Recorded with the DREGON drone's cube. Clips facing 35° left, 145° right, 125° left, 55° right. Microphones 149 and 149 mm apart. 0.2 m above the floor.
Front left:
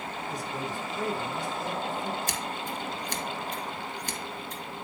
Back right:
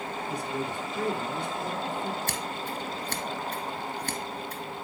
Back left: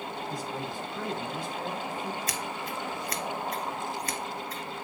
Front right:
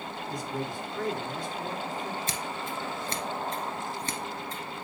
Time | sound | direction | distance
0.3 | a man speaking | 155° right | 2.5 m
2.3 | scissors | 115° right | 1.4 m